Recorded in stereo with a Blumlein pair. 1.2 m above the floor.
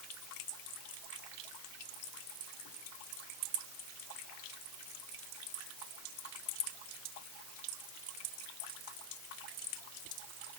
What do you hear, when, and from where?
Only background noise.